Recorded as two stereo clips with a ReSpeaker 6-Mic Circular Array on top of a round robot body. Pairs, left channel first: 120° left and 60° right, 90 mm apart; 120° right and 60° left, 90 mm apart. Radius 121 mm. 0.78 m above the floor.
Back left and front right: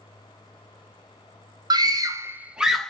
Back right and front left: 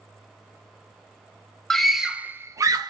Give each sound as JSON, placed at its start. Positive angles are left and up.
{"t": 1.7, "sound": "a scream", "azimuth_deg": -35, "distance_m": 0.6}